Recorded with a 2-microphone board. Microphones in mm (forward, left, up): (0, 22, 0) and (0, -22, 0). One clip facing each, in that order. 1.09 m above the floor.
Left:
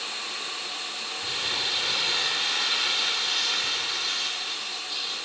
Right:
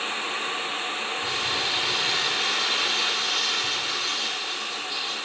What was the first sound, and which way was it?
Crumpling, 5° left (ahead or behind).